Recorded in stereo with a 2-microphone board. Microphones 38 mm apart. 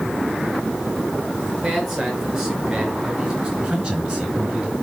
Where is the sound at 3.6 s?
20° right (ahead or behind), 3 m.